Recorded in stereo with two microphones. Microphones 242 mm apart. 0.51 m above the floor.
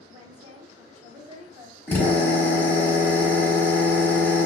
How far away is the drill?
About 1.3 m.